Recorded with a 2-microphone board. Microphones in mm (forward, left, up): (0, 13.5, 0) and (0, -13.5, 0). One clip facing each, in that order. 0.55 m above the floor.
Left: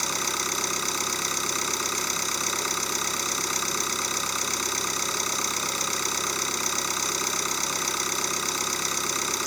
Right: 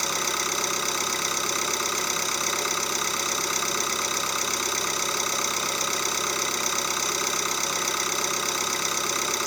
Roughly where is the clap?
I don't hear a clap.